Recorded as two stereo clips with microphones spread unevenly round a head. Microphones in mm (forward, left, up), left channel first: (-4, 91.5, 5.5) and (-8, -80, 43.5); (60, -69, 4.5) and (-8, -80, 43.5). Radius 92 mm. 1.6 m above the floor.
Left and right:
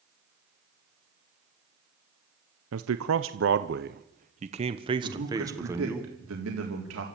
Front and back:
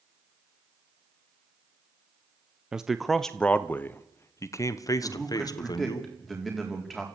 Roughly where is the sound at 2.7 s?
Right.